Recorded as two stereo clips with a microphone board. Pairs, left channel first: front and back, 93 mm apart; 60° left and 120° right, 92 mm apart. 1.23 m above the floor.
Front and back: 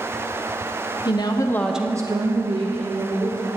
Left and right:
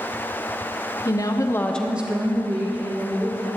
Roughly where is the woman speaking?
Ahead.